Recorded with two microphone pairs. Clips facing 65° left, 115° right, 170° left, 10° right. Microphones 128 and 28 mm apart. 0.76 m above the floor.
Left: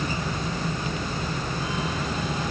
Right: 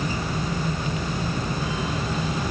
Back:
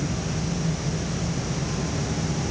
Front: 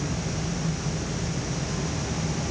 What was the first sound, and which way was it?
Only background noise.